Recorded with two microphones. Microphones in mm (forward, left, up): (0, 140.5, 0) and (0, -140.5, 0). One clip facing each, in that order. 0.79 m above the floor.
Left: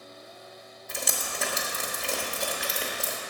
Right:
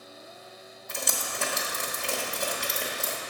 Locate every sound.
0.9 s dripping: centre (ahead or behind), 1.1 m